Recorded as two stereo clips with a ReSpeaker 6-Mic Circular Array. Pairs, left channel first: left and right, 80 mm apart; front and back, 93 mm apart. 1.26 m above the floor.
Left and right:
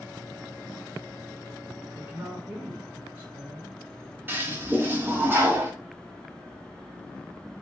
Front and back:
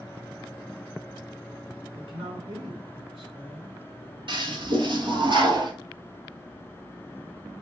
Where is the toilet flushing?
155° right, 0.9 m.